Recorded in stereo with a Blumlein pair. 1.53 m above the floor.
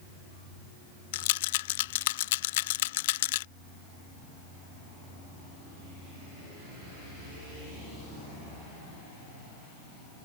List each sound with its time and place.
1.1 s a rattle: 55° left